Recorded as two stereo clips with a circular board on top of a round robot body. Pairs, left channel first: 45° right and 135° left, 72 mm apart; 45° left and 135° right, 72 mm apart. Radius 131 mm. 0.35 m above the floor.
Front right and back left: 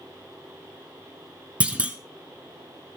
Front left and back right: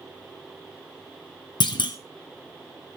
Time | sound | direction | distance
1.6 | a clunk | 65° left | 1.3 m